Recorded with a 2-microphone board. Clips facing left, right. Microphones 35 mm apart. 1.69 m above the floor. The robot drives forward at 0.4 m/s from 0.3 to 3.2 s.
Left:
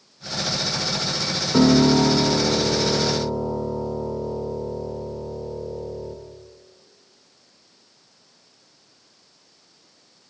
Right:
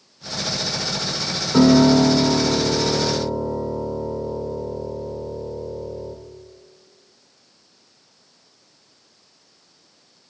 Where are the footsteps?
No footsteps in this recording.